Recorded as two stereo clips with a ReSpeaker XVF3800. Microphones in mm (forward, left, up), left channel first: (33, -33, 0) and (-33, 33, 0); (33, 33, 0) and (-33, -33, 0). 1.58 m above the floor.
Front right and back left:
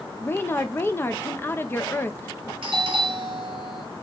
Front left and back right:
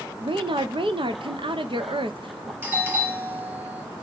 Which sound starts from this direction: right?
A woman speaking, at 0.2 s.